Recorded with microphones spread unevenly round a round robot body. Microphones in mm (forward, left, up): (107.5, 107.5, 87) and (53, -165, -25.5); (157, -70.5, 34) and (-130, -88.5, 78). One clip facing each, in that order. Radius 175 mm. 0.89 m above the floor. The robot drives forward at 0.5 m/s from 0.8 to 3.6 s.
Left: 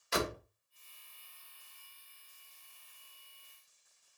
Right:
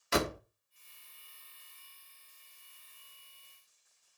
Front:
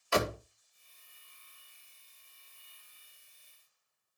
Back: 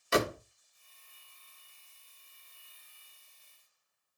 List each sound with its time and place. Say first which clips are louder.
0.1 s a door slam: right 4 dB, back 2 dB; 105° right, 1.6 m